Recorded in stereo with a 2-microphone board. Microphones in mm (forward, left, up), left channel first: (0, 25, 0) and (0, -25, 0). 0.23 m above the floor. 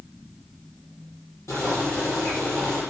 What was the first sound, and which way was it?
Boiling, 70° left (ahead or behind).